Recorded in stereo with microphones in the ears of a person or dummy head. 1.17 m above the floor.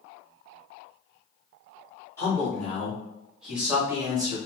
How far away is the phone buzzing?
No phone buzzing in this recording.